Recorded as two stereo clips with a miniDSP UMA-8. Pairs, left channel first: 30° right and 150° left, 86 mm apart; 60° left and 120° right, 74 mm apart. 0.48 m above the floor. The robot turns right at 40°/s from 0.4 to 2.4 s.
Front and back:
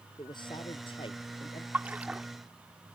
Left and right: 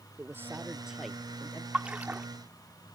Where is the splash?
165° right; by 2.3 s 145° right.